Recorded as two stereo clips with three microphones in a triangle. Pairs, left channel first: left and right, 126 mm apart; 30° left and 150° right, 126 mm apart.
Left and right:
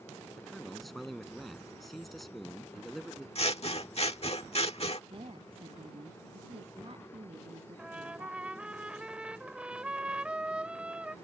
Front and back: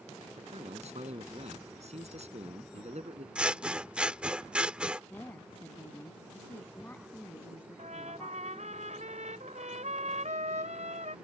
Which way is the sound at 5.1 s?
45° right.